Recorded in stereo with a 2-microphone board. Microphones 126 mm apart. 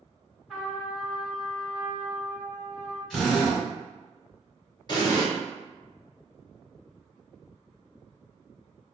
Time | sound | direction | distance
0.5 | a trumpet | 5° right (ahead or behind) | 1.6 m
3.1 | a drill | centre (ahead or behind) | 1.3 m
4.9 | an explosion | 35° left (ahead or behind) | 0.8 m